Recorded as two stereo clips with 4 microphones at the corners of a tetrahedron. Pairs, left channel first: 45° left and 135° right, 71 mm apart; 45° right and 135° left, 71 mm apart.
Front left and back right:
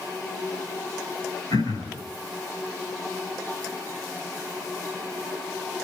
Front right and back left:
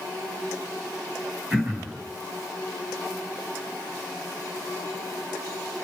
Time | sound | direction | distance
1.5 | throat clearing | 70° left | 5.5 m